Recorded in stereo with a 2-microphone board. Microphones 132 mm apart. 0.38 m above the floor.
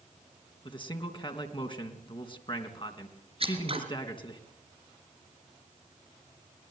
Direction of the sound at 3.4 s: 45° right (ahead or behind).